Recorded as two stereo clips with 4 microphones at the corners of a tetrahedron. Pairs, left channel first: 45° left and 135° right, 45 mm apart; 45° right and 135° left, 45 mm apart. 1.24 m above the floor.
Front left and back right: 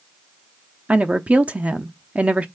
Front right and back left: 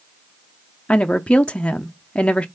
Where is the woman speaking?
95° right, 0.6 m.